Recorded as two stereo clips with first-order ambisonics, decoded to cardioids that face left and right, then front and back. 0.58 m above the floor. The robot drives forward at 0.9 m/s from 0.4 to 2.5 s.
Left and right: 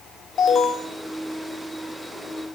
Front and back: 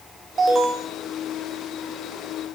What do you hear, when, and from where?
0.4 s an alarm: 125° left, 2.5 m; by 0.9 s 135° left, 2.5 m